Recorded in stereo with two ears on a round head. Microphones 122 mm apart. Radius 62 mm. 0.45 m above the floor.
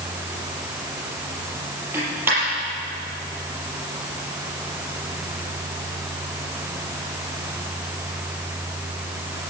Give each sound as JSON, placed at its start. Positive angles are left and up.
{"t": 1.9, "sound": "a dropped coin", "side_deg": -15, "distance_m": 7.0}